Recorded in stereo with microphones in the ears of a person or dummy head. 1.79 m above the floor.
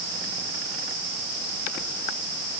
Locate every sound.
Only background noise.